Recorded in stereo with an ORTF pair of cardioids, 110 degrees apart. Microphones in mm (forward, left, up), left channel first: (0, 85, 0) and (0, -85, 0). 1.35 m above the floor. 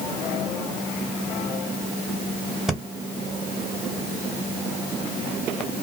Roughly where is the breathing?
Ahead.